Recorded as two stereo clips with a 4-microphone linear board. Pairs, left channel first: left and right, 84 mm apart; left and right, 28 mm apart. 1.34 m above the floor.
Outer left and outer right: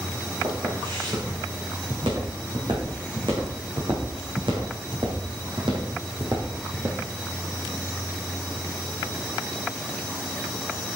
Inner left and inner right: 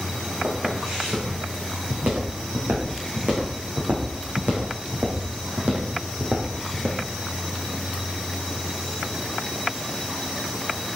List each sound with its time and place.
0.4 s footsteps: 75° right (ahead or behind), 7.5 m; by 7.0 s 60° right (ahead or behind), 3 m